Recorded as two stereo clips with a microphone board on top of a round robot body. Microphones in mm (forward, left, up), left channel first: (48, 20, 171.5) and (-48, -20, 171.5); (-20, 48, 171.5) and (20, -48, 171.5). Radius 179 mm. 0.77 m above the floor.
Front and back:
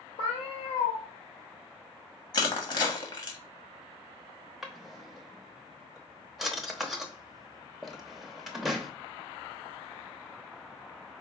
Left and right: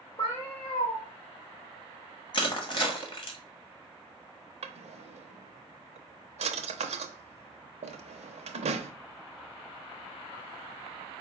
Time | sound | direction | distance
0.2 | a cat meowing | 60° left | 0.9 m
2.3 | crushing | 70° left | 1.5 m
4.6 | a drawer | 70° right | 0.7 m